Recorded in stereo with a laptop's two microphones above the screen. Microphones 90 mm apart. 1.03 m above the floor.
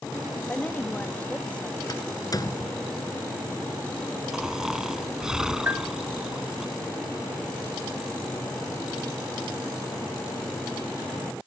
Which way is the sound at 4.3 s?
5° right (ahead or behind).